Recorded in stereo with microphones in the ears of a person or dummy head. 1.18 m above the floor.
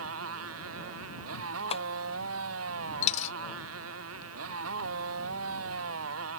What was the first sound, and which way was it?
A motorcycle, 90° right.